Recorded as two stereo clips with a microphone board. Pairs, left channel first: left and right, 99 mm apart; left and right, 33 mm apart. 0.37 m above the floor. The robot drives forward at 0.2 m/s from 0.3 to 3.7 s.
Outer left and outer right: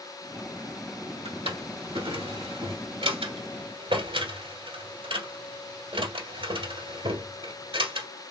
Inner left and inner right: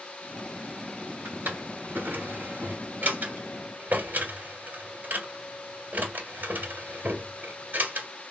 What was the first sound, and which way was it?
A drawer, 85° right.